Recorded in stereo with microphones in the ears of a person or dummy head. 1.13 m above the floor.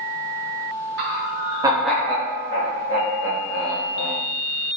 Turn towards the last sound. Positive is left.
turn(degrees=75)  # may be behind; listen again after turning